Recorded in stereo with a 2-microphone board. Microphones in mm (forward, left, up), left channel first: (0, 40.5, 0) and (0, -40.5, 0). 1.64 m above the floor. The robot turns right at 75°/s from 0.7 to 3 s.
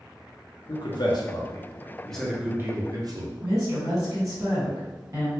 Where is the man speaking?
55° left (ahead or behind), 0.6 m; by 3.3 s 50° right (ahead or behind), 0.6 m.